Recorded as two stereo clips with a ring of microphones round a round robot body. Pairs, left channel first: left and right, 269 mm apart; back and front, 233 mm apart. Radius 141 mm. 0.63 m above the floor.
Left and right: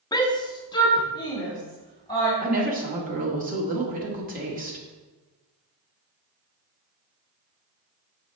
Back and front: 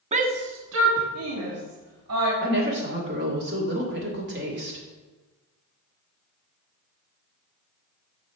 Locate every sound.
0.1 s a shout: 30° left, 0.6 m; by 2.3 s 15° left, 2.5 m
2.4 s a woman speaking: 35° right, 1.9 m